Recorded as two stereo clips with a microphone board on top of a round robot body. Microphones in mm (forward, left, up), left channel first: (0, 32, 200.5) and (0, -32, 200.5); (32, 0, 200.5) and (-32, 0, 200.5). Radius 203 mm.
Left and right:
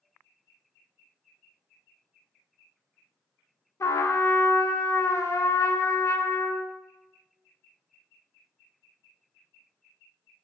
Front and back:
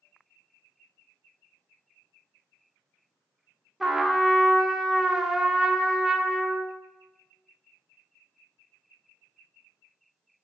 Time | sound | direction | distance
3.8 | a trumpet | 95° left | 0.6 m